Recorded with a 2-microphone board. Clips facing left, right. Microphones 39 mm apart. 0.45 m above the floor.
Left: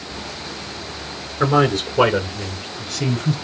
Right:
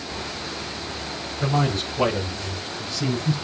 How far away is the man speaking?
About 5.5 m.